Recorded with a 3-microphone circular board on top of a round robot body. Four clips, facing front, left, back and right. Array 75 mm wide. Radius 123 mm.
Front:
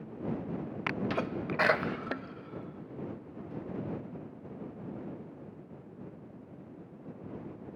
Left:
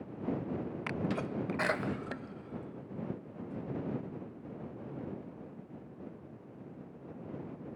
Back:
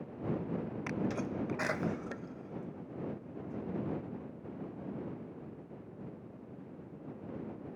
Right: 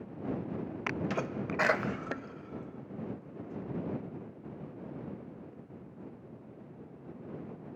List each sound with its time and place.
0.9 s a sneeze: 30° right